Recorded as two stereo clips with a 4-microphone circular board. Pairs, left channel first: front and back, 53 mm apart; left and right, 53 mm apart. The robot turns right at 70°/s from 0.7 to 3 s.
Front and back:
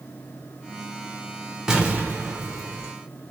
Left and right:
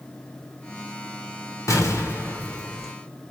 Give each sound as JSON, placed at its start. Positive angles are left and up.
{"t": 1.7, "sound": "an explosion", "azimuth_deg": 100, "distance_m": 1.3}